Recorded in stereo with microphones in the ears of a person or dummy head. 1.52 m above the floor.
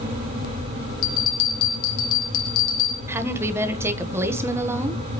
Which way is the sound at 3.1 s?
15° right (ahead or behind).